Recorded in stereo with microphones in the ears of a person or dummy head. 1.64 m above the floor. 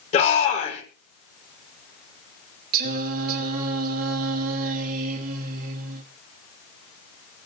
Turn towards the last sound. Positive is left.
turn(degrees=-50)  # may be behind; listen again after turning